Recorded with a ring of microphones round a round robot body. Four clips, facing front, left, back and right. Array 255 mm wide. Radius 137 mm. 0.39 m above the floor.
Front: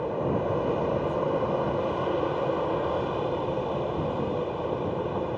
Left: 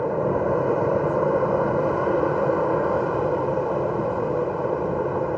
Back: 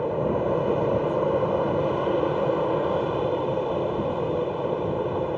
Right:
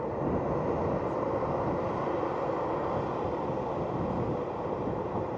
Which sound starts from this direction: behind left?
An aircraft, at 0.0 s.